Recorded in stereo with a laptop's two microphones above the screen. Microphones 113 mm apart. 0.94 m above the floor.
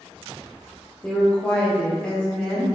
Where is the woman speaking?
10° left (ahead or behind), 0.8 m.